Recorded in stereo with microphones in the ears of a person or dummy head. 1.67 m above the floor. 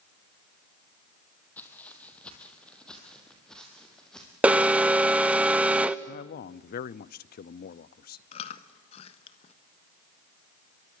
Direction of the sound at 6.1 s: 45° left (ahead or behind).